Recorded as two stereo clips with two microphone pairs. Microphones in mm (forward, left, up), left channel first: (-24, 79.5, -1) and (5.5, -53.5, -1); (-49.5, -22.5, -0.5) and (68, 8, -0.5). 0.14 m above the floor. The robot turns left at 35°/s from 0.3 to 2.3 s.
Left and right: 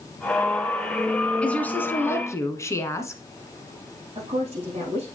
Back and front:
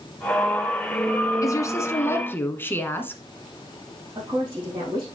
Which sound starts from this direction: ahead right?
A woman speaking, at 4.2 s.